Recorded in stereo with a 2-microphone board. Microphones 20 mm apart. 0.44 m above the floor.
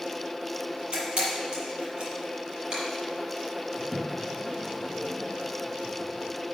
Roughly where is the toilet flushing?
Centre.